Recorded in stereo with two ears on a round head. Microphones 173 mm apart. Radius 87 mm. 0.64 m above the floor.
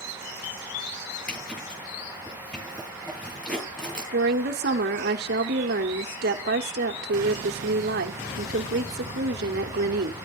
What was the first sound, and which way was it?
A zipper, 5° left (ahead or behind).